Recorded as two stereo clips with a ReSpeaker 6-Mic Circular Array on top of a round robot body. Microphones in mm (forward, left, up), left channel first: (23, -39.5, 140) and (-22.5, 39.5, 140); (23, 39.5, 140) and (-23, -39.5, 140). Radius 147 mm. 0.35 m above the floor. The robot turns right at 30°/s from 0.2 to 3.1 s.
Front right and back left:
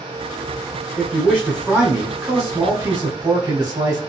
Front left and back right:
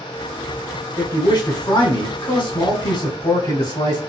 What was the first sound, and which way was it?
A man speaking, 10° left.